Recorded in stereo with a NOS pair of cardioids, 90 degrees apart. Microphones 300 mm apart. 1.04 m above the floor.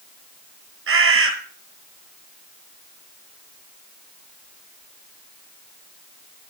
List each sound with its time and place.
0.9 s a bird: 45° right, 6.5 m